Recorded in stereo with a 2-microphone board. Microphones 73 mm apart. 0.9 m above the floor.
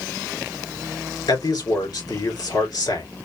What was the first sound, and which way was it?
A man speaking, 60° left (ahead or behind).